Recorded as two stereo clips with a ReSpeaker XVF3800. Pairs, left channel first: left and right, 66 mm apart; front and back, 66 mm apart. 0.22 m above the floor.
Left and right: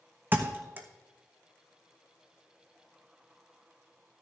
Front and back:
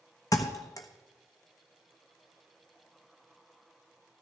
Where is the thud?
30° right, 1.2 m.